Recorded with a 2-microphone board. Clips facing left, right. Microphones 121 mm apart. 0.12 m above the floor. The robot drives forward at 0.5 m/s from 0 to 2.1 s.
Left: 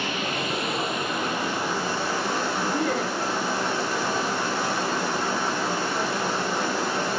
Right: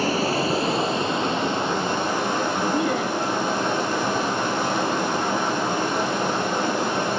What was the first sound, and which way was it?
Running water, 40° right (ahead or behind).